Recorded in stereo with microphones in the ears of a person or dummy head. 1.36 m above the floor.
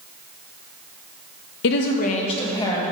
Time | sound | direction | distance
1.6 | a woman speaking | 65° left (ahead or behind) | 0.9 m